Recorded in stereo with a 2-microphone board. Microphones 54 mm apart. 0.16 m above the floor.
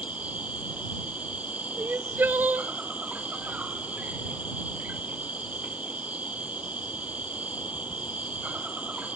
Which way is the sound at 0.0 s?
25° right (ahead or behind).